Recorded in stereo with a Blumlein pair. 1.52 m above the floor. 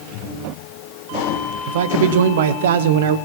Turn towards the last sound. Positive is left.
turn(degrees=-55)